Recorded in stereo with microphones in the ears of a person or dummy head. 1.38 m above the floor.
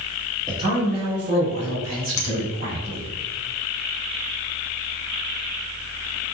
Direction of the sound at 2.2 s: 65° left (ahead or behind).